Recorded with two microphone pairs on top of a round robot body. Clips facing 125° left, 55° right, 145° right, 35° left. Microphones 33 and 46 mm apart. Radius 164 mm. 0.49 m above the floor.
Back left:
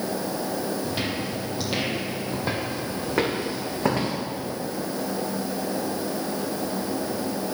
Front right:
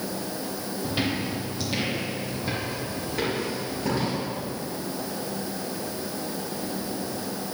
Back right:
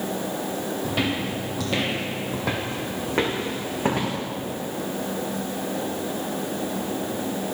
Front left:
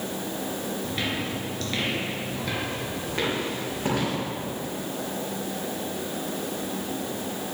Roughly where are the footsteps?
Behind right.